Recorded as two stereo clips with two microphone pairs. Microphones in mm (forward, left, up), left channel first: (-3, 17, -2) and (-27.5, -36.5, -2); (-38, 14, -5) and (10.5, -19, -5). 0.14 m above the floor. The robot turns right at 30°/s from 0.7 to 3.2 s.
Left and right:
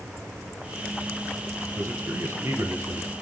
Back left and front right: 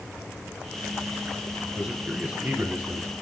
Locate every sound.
1.7 s a man speaking: 115° right, 2 m; by 3.1 s 70° right, 2 m